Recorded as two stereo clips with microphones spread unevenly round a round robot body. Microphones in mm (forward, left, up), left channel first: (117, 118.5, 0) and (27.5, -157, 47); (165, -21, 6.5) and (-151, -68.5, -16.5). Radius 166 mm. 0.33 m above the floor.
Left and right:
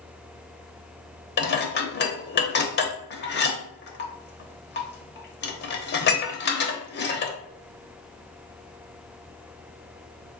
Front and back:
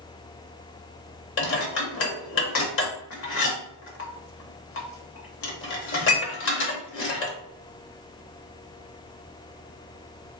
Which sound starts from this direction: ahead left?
Dishes clattering, at 1.4 s.